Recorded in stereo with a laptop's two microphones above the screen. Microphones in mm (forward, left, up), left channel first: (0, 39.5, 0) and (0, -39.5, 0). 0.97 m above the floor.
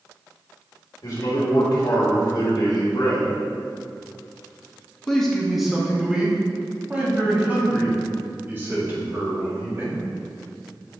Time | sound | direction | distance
1.0 | a man speaking | 70° left (ahead or behind) | 2 m